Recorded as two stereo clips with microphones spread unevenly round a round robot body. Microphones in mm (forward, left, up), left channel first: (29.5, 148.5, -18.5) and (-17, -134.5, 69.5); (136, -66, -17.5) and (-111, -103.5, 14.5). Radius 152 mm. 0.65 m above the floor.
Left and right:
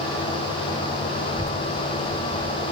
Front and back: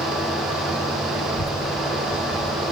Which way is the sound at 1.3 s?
20° right.